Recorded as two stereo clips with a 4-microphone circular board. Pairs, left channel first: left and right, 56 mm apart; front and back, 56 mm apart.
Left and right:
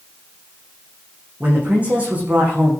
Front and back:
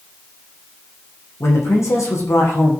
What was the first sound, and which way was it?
A man speaking, 25° right.